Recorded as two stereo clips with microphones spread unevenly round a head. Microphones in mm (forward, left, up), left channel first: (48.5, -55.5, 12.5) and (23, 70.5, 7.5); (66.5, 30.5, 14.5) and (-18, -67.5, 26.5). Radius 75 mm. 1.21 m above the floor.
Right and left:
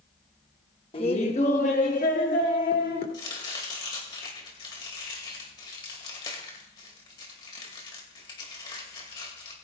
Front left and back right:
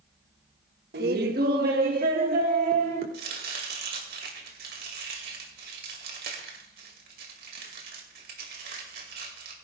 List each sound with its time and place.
0.9 s laughter: 135° right, 1.1 m; by 3.0 s 115° right, 3 m
3.1 s chopping: 140° right, 2.5 m